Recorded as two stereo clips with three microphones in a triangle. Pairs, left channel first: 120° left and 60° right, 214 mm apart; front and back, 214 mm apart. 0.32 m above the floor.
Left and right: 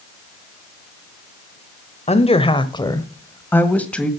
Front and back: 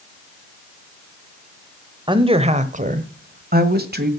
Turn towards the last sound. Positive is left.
turn(degrees=-155)